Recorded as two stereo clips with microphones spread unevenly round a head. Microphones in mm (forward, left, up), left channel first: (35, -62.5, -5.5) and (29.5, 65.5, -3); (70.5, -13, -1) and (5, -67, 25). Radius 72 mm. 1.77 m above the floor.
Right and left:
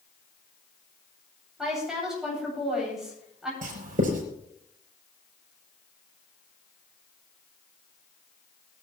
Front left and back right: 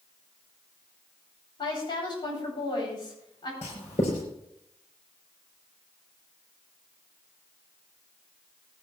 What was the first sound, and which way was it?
A woman speaking, 5° left.